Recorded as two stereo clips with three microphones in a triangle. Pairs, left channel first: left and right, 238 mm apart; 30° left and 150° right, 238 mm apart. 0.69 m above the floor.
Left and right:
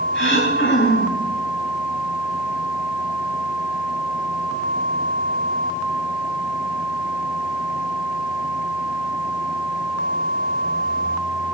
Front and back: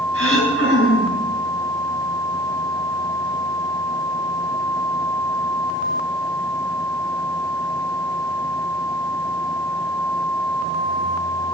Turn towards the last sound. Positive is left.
turn(degrees=55)